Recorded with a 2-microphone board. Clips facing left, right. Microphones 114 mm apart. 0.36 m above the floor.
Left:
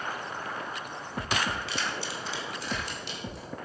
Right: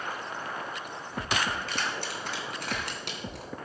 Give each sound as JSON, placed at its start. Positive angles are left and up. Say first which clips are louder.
{"t": 1.7, "sound": "keys jangling", "louder": "even", "side_deg": -45, "distance_m": 2.5}